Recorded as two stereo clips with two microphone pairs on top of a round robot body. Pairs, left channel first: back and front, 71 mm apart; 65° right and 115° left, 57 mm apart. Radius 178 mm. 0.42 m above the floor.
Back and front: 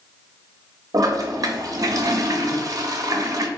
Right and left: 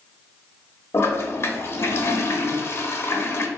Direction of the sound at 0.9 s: 30° right.